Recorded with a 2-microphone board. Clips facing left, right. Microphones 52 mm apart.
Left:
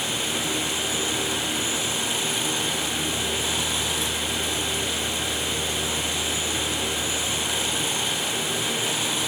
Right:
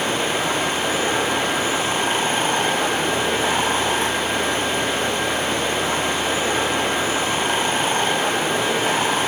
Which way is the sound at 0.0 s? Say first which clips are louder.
Right 7 dB; 45° right (ahead or behind).